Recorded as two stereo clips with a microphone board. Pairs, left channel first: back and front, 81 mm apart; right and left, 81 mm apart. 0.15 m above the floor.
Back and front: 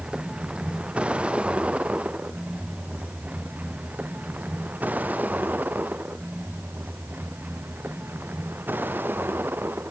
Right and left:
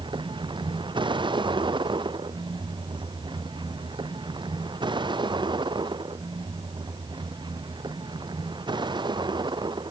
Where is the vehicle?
80° left; by 9.9 s 65° left.